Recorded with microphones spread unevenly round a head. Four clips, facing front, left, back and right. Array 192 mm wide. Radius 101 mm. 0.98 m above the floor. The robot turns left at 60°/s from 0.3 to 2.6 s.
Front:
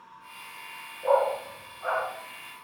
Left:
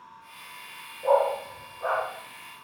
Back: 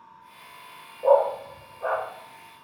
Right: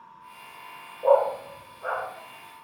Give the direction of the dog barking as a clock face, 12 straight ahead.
5 o'clock.